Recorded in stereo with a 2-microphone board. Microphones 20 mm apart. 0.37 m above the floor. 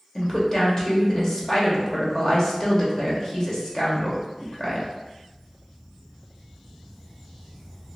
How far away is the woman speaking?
About 1.0 m.